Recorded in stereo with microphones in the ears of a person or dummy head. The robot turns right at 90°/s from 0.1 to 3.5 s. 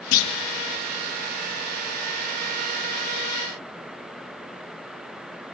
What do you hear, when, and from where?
0.1 s a clunk: 85° left, 1.8 m; by 0.3 s 65° left (ahead or behind), 1.8 m